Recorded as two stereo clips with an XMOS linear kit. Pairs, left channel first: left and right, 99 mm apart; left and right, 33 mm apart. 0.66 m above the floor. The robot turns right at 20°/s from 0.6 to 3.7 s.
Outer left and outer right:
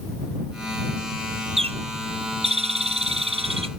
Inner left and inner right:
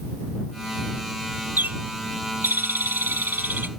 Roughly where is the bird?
Right.